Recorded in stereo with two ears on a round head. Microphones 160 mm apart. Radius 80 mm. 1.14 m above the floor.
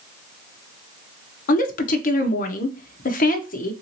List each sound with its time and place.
1.5 s a woman speaking: 50° left (ahead or behind), 0.6 m